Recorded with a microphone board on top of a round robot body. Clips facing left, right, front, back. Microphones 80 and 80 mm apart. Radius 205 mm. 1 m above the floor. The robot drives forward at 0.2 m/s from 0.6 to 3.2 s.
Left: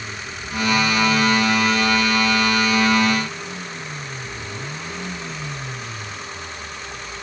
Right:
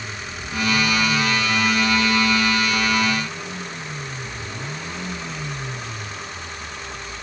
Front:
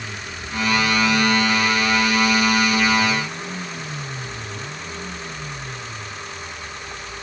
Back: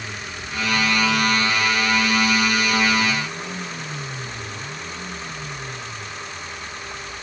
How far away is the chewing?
No chewing in this recording.